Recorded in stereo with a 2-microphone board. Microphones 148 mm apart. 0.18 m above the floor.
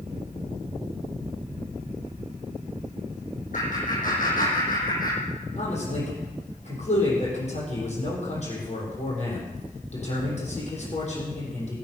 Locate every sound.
3.5 s laughter: 60° left (ahead or behind), 7 m; by 5.2 s 75° left (ahead or behind), 6.5 m
5.6 s a man speaking: 50° left (ahead or behind), 7.5 m